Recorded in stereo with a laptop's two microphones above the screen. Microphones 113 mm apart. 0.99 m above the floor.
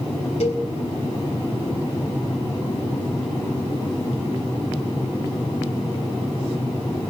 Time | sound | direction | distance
0.4 | a cowbell | 80° left | 3.5 m